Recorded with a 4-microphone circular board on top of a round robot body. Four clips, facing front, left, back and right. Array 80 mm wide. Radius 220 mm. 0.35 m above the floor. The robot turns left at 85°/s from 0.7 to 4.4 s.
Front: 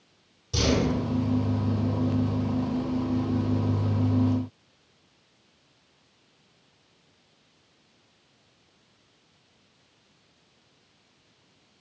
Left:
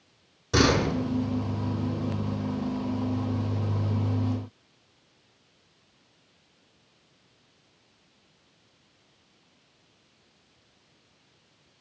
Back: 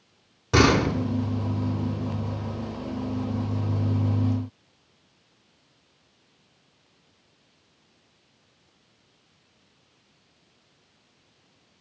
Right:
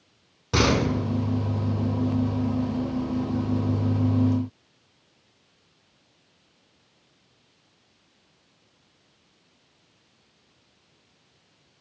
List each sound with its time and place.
0.5 s a door slam: 160° right, 5 m; by 0.9 s straight behind, 5 m